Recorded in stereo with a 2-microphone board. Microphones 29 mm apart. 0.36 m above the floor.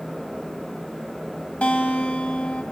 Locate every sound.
1.6 s a guitar: 55° left (ahead or behind), 1.0 m